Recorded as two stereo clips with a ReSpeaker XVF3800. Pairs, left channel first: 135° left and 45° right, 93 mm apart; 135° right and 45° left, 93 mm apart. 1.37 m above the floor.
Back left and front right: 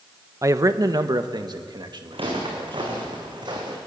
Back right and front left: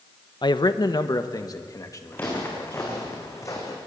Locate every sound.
0.4 s a man speaking: 100° right, 0.8 m; by 3.0 s 80° right, 2.5 m
2.1 s footsteps: 65° right, 5.5 m; by 3.8 s 85° right, 4.5 m